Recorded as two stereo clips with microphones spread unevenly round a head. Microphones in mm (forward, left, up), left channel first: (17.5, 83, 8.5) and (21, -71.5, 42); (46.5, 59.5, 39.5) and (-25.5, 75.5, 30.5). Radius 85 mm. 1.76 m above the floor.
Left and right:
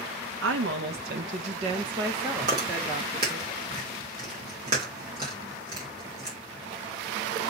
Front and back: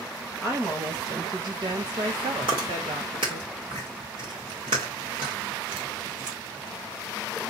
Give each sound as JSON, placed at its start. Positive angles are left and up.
{"t": 0.4, "sound": "a woman speaking", "azimuth_deg": -105, "distance_m": 1.0}
{"t": 2.4, "sound": "chewing", "azimuth_deg": -145, "distance_m": 2.0}